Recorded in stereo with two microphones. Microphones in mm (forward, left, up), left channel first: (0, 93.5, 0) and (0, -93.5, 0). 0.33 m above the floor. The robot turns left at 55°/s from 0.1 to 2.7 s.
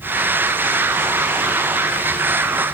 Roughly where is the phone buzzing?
No phone buzzing in this recording.